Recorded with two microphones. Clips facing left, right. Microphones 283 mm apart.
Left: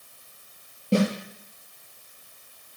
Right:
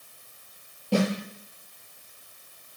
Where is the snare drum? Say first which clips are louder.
Left 2 dB; 20° left (ahead or behind), 5.5 m.